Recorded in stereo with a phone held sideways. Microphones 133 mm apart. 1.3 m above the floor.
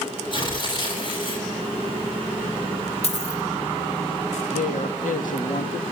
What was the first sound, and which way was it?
Tearing paper, 40° left (ahead or behind).